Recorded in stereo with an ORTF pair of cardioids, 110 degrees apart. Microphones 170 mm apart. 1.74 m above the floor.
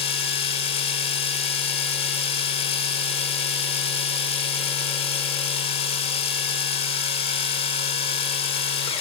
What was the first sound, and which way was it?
A machine running, 35° left.